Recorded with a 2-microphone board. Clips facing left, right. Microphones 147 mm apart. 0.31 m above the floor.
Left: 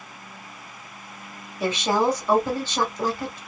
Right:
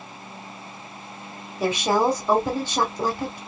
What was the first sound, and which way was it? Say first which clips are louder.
A woman speaking: right 1 dB; 20° right (ahead or behind).